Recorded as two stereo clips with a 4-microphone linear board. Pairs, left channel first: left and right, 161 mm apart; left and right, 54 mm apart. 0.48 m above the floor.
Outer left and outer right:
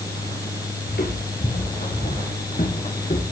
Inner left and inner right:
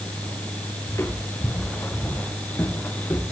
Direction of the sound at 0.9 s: 70° left (ahead or behind).